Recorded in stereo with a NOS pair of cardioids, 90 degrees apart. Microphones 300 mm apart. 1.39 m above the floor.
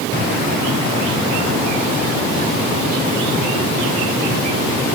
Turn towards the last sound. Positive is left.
No sound to turn to.